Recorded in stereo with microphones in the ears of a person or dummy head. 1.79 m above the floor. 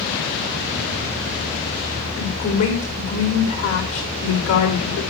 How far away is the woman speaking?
About 5 m.